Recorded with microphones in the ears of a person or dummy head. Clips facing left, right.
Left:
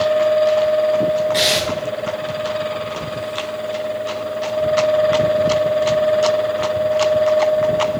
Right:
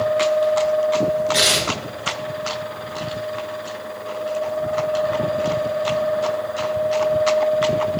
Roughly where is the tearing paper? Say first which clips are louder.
Left 3 dB; centre.